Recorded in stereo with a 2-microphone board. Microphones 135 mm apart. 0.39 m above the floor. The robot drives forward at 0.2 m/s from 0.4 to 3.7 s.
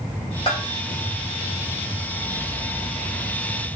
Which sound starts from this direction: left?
A bell, at 0.5 s.